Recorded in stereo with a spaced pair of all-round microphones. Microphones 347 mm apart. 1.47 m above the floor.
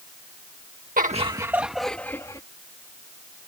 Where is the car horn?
I don't hear a car horn.